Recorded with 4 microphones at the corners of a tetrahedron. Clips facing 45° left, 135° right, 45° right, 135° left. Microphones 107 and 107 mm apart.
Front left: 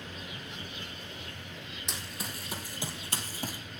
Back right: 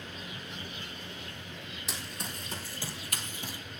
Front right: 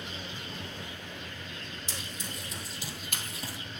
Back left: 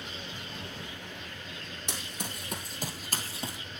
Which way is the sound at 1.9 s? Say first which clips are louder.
Even, back left 4 dB; 135° left.